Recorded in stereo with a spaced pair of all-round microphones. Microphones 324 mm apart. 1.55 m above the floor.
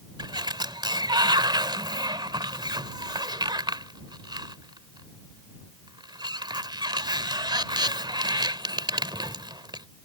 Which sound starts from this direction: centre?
A sliding door, at 0.2 s.